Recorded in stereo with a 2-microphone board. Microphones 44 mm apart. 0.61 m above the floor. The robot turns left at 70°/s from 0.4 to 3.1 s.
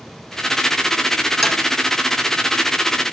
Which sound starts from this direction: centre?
Tapping, at 1.4 s.